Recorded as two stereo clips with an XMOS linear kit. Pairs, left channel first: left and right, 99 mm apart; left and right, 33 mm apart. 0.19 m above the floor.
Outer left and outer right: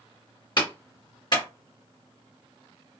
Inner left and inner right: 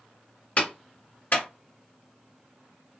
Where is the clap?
45° left (ahead or behind), 1.8 m.